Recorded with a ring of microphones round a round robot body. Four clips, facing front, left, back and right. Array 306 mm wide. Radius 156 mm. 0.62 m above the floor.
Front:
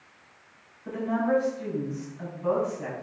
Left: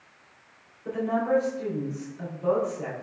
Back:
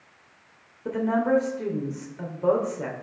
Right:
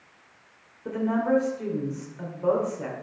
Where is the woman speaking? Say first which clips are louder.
Right 1 dB, back 3 dB; 160° right, 2.5 m.